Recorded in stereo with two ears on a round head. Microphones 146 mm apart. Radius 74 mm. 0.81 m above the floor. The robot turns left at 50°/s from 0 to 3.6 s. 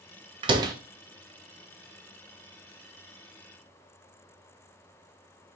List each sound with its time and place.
0.4 s a door slam: 35° right (ahead or behind), 0.7 m; by 0.7 s 20° right (ahead or behind), 0.7 m